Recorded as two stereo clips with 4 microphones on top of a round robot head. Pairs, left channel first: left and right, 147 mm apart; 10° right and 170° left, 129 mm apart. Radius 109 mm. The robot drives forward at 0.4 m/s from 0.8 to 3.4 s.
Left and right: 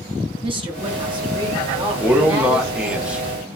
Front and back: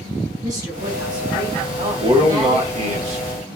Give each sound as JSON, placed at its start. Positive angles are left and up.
{"t": 0.4, "sound": "a woman speaking", "azimuth_deg": -135, "distance_m": 1.1}
{"t": 2.0, "sound": "a man speaking", "azimuth_deg": -165, "distance_m": 0.9}